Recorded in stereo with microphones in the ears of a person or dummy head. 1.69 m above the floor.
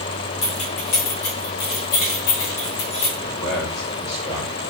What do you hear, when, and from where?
0.4 s keys jangling: 30° left (ahead or behind), 0.7 m; by 3.1 s 65° left (ahead or behind), 2.0 m
3.2 s a man speaking: 85° left, 2 m